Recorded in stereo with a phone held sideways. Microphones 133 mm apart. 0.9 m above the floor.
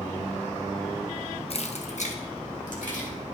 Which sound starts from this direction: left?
Keys jangling, at 1.5 s.